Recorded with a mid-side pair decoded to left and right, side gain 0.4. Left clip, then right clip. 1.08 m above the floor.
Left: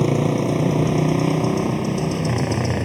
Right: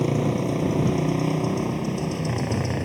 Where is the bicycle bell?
I don't hear a bicycle bell.